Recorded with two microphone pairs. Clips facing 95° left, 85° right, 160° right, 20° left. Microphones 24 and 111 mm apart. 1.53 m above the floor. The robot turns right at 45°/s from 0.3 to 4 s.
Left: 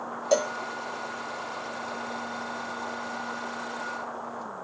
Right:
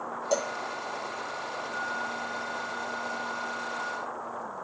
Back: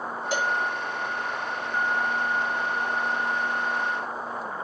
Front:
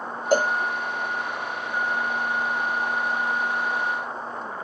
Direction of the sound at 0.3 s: 40° left.